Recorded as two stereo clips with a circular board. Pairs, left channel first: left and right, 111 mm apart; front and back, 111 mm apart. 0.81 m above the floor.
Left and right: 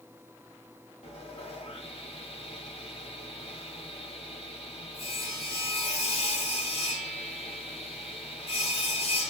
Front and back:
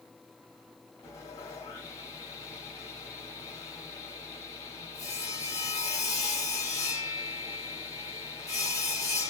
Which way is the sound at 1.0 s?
60° left.